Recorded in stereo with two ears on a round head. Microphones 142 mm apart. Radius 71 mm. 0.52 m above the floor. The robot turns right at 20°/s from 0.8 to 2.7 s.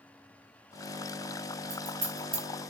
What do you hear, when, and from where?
1.7 s scissors: 55° right (ahead or behind), 1.2 m; by 2.4 s 40° right (ahead or behind), 1.2 m